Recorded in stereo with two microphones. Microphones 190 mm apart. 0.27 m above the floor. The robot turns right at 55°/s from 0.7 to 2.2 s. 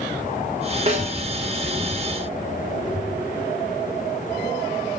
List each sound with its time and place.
0.9 s a snare drum: 35° right (ahead or behind), 1.5 m; by 1.1 s 50° right (ahead or behind), 1.5 m